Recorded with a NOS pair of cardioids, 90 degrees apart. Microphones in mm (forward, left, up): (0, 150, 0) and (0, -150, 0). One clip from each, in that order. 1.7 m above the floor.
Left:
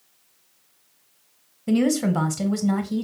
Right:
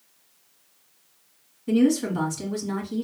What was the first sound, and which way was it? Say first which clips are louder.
A woman speaking: even; 55° left.